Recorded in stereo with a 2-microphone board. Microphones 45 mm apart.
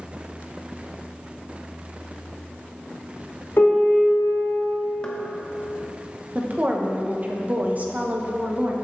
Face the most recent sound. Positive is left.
turn(degrees=-40)  # may be behind; listen again after turning